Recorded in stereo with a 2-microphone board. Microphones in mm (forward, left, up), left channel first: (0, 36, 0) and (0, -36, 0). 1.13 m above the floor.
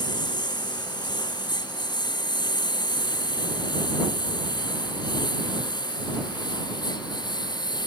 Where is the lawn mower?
85° left; by 7.9 s 80° left.